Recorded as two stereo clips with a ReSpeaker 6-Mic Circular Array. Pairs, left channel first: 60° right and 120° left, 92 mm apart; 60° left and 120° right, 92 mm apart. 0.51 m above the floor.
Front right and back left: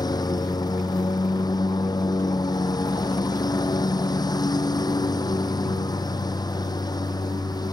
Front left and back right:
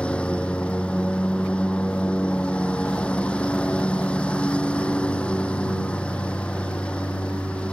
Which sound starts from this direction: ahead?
A lawn mower, at 0.0 s.